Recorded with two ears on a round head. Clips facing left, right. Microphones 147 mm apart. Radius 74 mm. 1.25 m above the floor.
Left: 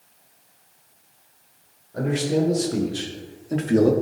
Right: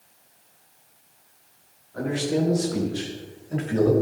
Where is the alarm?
No alarm in this recording.